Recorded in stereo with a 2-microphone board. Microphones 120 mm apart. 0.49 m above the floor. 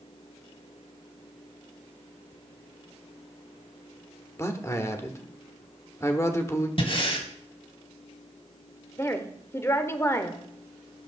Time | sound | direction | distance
4.4 | a man speaking | 25° left (ahead or behind) | 1.2 m
6.8 | breathing | 50° left (ahead or behind) | 1.6 m
9.0 | a woman speaking | 20° left (ahead or behind) | 1.1 m